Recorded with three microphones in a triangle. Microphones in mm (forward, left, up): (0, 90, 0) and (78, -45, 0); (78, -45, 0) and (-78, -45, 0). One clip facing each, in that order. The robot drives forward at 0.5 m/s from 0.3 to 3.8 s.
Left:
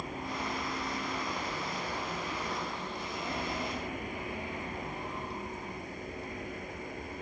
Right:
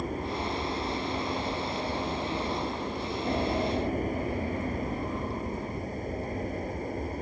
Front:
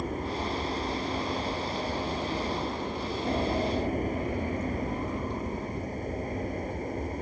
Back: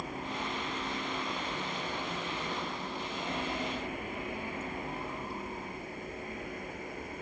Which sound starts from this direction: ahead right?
An aircraft, at 0.0 s.